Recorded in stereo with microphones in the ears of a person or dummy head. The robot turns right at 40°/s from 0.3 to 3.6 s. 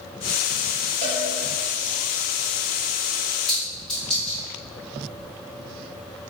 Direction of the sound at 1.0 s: 25° right (ahead or behind).